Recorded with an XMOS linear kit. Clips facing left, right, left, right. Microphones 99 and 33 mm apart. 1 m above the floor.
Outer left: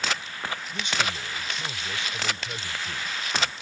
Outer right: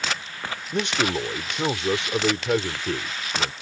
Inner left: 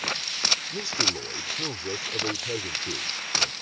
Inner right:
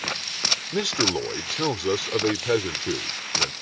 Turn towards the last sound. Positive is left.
turn(degrees=-70)  # may be behind; listen again after turning